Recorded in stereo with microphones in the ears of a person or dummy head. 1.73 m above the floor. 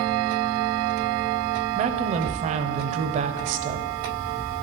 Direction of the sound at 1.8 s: 45° right (ahead or behind).